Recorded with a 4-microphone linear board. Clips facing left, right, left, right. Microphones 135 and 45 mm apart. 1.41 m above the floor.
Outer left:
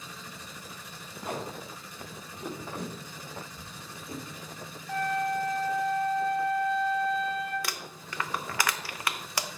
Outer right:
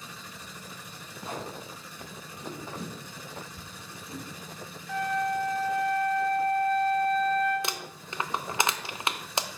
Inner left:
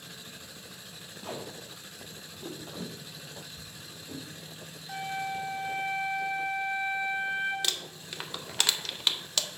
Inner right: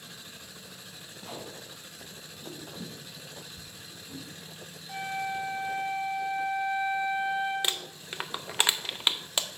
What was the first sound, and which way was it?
Tape being pulled, 55° left (ahead or behind).